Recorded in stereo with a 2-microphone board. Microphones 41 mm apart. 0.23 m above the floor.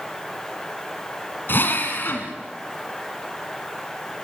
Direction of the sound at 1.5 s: 55° left (ahead or behind).